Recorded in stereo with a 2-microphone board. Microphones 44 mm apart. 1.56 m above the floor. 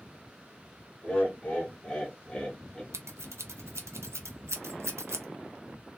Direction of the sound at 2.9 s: 85° right.